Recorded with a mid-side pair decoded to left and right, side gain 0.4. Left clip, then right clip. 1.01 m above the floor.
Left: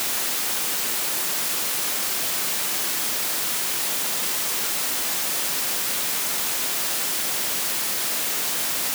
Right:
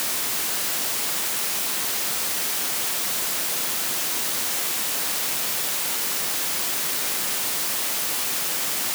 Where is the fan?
I don't hear a fan.